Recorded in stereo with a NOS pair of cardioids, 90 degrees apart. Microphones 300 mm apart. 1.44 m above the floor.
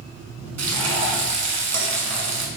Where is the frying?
60° right, 1.5 m.